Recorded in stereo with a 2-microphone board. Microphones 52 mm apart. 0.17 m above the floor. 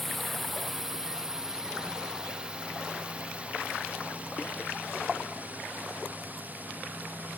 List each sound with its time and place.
0.0 s a drone: centre (ahead or behind); by 7.4 s 35° right (ahead or behind)